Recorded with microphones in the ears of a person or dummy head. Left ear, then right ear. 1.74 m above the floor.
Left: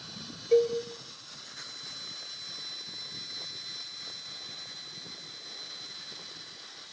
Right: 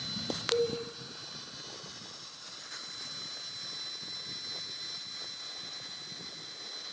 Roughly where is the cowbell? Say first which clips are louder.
Left 7 dB; left.